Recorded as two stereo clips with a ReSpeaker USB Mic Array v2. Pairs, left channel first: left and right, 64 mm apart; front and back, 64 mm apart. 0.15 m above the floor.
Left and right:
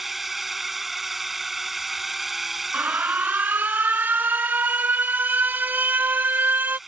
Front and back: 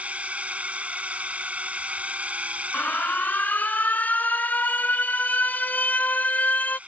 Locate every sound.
0.0 s a drone: 170° right
2.7 s an alarm: 50° right